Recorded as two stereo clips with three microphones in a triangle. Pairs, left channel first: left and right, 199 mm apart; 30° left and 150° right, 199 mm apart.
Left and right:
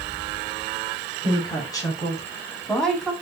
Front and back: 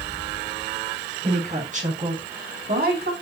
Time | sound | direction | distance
1.2 | a woman speaking | 155° left | 5.5 m